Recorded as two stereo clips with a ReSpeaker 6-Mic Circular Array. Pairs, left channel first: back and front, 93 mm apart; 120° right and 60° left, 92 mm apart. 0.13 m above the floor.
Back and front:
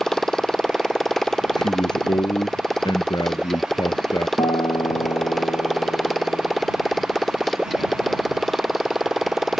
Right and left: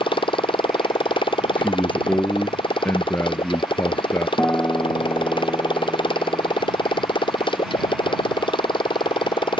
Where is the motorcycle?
95° right; by 9.6 s 90° right.